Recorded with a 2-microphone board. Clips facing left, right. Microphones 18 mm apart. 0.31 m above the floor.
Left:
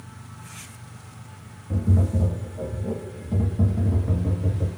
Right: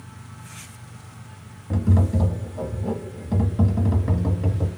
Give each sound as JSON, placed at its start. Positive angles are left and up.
{"t": 1.7, "sound": "tapping", "side_deg": -40, "distance_m": 0.9}